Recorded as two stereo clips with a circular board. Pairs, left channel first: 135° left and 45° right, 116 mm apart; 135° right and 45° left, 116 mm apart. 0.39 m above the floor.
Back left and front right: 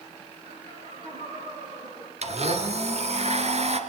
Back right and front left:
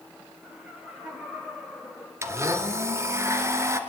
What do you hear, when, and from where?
0.4 s laughter: 35° right, 7 m; by 2.1 s 40° right, 5.5 m
2.2 s a blender: 25° right, 2 m